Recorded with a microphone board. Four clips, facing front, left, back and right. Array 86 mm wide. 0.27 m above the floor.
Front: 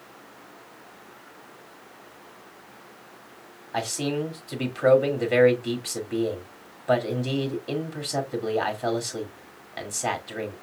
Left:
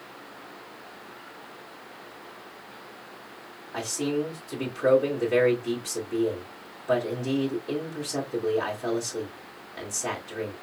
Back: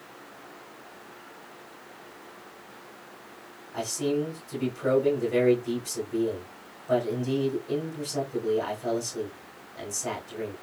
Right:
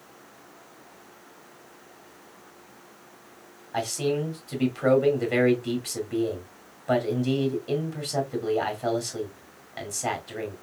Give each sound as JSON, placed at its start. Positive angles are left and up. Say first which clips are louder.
{"t": 3.7, "sound": "a man speaking", "louder": "right 2 dB, even", "azimuth_deg": -25, "distance_m": 2.0}